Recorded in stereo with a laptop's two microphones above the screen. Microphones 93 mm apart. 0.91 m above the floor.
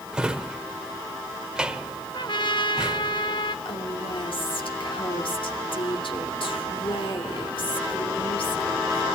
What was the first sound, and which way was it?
A drawer, 10° right (ahead or behind).